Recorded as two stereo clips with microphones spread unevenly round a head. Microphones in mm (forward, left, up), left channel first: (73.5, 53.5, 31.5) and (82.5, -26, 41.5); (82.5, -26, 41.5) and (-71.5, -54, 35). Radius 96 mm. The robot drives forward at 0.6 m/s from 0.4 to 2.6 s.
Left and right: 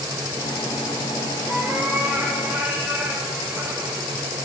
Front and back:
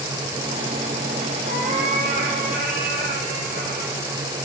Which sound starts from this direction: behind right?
A cat meowing, at 1.5 s.